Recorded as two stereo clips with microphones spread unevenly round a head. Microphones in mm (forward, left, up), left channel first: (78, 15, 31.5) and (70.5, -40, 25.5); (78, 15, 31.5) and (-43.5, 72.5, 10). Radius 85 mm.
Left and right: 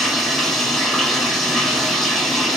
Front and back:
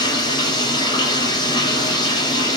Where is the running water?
5° right, 1.8 m.